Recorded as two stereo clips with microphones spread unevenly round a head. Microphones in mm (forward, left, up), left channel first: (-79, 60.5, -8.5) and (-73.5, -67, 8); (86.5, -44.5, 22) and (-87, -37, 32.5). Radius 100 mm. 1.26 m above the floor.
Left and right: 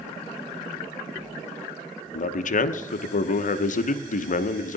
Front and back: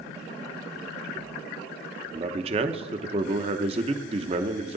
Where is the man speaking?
115° left, 0.8 m.